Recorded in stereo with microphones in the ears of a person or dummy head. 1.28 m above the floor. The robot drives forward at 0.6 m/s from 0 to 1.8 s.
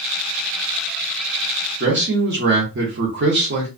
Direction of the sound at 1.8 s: 45° right (ahead or behind).